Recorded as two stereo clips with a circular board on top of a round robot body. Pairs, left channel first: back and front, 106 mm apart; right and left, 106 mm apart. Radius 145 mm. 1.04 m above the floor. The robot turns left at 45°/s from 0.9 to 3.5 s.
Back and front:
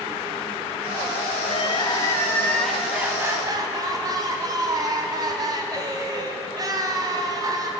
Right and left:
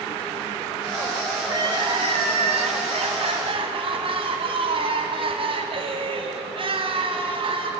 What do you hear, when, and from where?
1.4 s crying: 145° left, 2.5 m; by 7.7 s 55° left, 2.5 m